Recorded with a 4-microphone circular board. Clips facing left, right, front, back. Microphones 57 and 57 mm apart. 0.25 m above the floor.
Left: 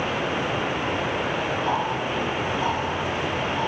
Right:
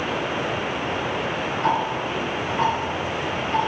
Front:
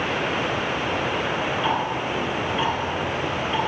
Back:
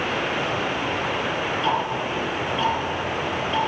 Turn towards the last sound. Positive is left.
turn(degrees=-75)